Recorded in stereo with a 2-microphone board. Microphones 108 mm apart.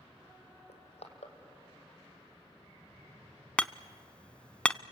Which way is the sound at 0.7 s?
80° left.